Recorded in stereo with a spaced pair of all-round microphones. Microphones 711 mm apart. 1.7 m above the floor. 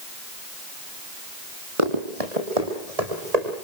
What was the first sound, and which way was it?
Running footsteps, 50° right (ahead or behind).